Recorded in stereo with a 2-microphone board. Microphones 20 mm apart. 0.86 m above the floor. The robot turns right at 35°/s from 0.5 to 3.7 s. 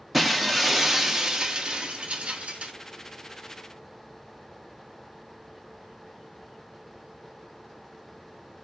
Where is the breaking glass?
Straight behind, 0.5 m; by 2.7 s 100° right, 0.5 m.